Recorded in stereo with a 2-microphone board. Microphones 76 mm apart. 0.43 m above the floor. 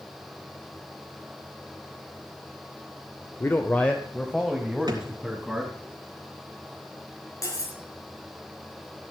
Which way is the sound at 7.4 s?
45° left (ahead or behind).